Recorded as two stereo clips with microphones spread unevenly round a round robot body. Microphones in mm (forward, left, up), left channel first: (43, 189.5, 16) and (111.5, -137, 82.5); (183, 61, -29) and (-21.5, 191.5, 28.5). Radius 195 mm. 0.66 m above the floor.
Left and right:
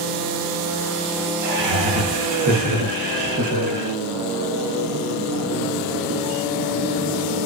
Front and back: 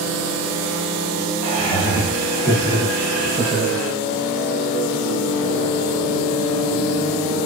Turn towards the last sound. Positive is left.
turn(degrees=-40)